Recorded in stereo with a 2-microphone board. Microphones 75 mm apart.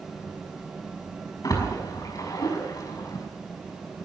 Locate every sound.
1.4 s a splash: 55° left (ahead or behind), 5.5 m